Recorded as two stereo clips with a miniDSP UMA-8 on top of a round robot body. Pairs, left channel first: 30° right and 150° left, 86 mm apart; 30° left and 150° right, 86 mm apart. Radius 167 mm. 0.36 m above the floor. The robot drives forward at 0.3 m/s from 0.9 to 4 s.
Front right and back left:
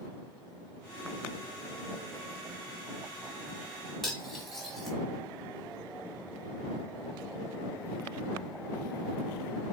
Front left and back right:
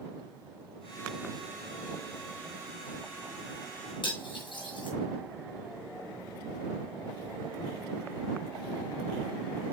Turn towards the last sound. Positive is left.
turn(degrees=55)